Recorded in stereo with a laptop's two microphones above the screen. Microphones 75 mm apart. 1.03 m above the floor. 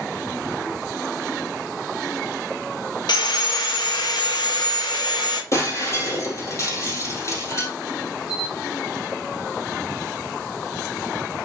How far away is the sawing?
About 1.3 m.